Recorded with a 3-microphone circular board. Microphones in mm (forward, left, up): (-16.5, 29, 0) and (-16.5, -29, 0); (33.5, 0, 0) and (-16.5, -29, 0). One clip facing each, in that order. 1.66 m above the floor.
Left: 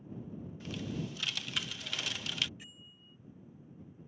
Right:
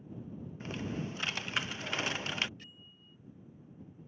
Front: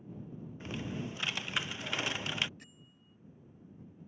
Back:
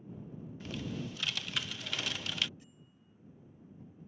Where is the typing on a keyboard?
35° right.